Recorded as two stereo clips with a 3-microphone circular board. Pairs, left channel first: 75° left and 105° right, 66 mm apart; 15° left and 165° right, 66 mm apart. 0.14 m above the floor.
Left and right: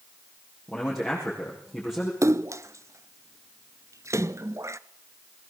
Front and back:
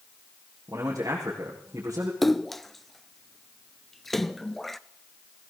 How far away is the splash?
About 0.5 m.